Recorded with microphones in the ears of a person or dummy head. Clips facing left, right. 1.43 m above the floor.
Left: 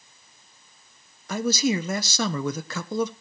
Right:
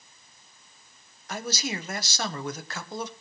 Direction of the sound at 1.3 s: 70° left (ahead or behind).